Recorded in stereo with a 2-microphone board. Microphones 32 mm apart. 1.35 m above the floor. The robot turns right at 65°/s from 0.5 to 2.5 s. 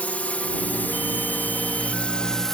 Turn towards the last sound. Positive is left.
turn(degrees=10)  # may be behind; listen again after turning